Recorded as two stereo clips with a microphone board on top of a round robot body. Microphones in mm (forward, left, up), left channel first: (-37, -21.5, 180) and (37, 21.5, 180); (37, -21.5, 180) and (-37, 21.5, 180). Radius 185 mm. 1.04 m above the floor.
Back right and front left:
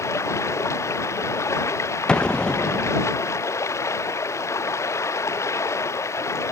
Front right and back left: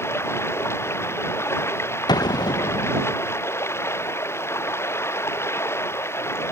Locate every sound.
0.0 s running water: 90° right
2.1 s an explosion: 70° right